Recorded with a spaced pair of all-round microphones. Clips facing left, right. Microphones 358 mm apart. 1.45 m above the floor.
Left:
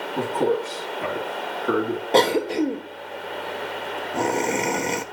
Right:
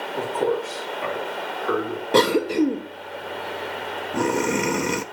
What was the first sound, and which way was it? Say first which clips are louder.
A man speaking: left 1 dB; 50° left (ahead or behind).